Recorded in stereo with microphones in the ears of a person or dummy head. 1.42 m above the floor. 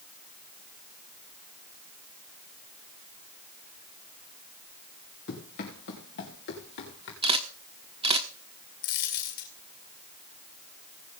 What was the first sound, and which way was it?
Running footsteps, 50° left (ahead or behind).